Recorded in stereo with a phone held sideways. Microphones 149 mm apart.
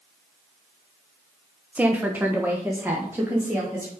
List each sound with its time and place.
1.8 s a woman speaking: 10° right (ahead or behind), 0.7 m; by 3.9 s 15° right (ahead or behind), 2.5 m